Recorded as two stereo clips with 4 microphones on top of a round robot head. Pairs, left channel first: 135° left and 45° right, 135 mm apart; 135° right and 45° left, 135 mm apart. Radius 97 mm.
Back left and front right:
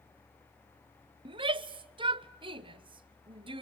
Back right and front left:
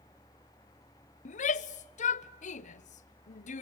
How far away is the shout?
About 0.9 m.